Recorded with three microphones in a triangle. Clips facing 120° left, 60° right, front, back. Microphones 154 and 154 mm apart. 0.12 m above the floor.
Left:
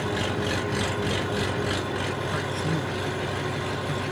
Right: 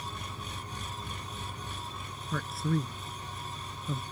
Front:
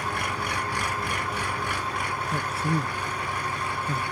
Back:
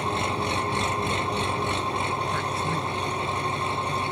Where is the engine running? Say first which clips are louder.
Left 16 dB, back 4 dB; 115° left.